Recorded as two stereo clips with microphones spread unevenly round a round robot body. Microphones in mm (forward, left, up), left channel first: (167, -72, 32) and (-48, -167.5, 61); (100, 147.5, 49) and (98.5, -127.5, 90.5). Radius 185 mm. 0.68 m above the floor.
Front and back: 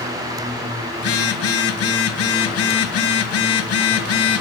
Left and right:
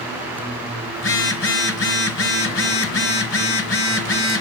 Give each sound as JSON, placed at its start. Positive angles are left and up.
{"t": 1.0, "sound": "a phone buzzing", "azimuth_deg": 45, "distance_m": 1.3}